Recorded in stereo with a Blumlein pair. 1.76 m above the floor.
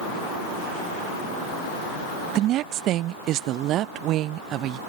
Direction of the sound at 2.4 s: 35° right.